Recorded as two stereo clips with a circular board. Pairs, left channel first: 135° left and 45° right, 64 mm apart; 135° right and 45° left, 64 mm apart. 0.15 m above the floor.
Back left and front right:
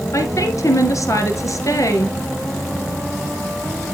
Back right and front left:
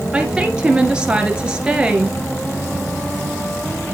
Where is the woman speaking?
120° left, 2.5 m.